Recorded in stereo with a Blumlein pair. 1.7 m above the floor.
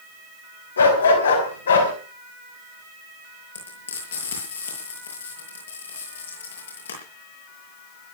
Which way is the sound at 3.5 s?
65° left.